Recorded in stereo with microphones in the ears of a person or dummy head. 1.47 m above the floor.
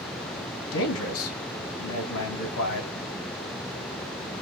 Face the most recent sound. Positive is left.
turn(degrees=80)